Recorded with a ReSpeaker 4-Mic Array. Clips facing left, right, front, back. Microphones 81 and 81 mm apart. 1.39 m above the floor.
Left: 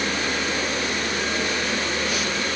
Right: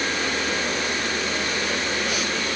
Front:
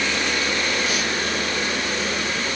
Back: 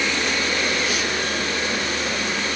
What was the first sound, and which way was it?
Only background noise.